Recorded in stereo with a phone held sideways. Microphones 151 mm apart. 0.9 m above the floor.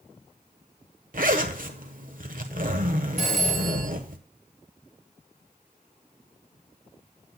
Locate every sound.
1.1 s a zipper: 65° right (ahead or behind), 1.2 m
3.2 s a phone ringing: 55° right (ahead or behind), 4 m